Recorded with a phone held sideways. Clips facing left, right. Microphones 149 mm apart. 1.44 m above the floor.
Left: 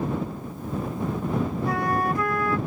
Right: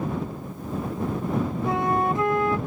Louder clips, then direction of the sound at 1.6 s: Right 3 dB; 25° right (ahead or behind).